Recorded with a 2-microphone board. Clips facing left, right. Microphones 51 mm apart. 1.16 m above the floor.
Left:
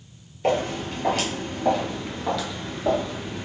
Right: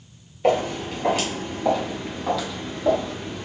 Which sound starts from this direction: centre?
Footsteps, at 0.4 s.